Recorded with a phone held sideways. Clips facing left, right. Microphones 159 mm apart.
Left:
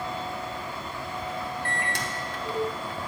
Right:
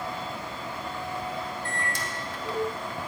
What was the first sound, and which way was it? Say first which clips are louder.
A microwave: left 2 dB; 65° left (ahead or behind).